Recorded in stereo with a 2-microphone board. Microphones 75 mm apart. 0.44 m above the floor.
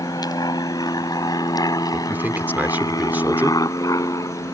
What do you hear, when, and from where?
0.0 s an aircraft: 60° left (ahead or behind); by 4.5 s 50° left (ahead or behind)
1.9 s a man speaking: 25° right (ahead or behind)